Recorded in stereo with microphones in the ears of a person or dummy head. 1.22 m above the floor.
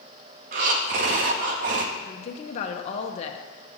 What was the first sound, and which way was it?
Breathing, 45° right (ahead or behind).